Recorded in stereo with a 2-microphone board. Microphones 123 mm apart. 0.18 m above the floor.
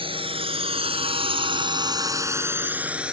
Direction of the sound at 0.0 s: 45° right (ahead or behind).